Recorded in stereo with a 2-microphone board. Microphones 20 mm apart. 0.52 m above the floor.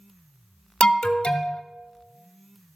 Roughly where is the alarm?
Left.